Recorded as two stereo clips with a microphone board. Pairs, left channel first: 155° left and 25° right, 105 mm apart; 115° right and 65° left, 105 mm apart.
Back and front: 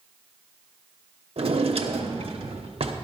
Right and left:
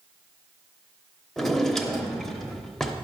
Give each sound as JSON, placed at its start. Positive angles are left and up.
{"t": 1.4, "sound": "a drawer", "azimuth_deg": -25, "distance_m": 0.9}